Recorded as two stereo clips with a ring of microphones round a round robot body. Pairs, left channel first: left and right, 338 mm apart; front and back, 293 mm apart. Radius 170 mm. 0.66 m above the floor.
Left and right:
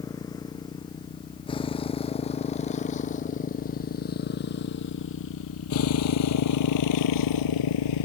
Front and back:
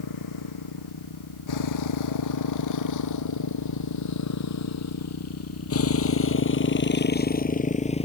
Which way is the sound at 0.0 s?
10° left.